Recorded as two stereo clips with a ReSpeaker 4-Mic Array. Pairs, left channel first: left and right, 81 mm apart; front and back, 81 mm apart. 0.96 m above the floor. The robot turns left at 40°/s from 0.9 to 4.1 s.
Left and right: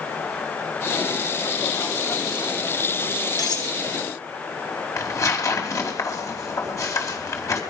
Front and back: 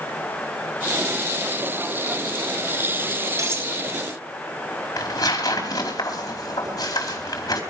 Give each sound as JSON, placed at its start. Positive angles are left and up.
{"t": 3.4, "sound": "cutlery clinking", "azimuth_deg": 130, "distance_m": 3.0}
{"t": 5.0, "sound": "tearing paper", "azimuth_deg": 40, "distance_m": 4.0}